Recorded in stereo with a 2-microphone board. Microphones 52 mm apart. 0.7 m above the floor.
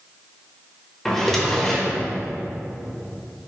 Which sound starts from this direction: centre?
A drawer, at 1.1 s.